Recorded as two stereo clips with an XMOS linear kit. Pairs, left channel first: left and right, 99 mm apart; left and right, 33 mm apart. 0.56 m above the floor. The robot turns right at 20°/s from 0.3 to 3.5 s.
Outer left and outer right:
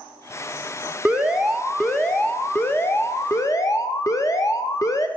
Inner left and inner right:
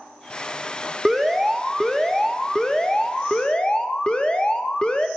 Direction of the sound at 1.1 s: 10° right.